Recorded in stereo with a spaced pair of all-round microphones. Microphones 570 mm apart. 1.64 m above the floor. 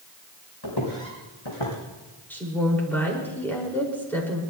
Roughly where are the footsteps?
Left.